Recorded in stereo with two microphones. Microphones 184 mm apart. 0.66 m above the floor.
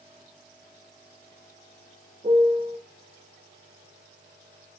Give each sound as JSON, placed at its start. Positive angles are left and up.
{"t": 2.2, "sound": "a piano", "side_deg": -35, "distance_m": 0.5}